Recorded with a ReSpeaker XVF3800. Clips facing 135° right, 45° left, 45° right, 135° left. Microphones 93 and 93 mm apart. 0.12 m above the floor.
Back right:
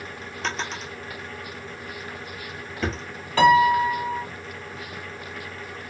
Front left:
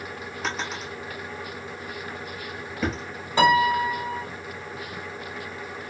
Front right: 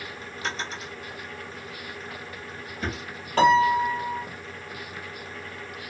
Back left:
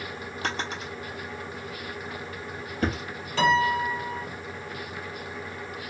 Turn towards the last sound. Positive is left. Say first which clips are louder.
# back right 3 dB, front right 4 dB
turn(degrees=-25)